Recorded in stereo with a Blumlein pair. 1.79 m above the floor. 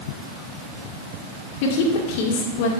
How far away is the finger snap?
No finger snap in this recording.